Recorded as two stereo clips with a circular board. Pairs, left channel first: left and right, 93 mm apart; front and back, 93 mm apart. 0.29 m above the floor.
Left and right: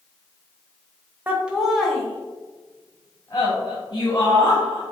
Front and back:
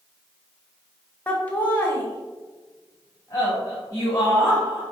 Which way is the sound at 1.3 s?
55° right.